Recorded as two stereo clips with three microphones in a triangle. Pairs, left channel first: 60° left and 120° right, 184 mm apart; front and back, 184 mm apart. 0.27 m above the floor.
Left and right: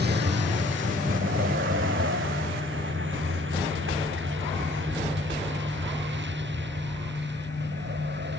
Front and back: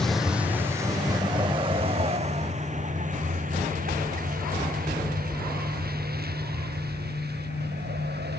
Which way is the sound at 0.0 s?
85° right.